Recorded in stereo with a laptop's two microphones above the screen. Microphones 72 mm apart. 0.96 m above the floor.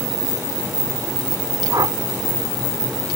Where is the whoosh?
60° right (ahead or behind).